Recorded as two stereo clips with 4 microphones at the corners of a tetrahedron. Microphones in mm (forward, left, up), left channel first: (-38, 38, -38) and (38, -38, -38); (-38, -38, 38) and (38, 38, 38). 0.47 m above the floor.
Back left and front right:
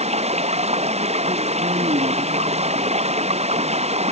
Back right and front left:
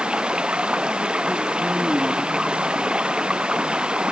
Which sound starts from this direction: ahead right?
Running water, at 0.0 s.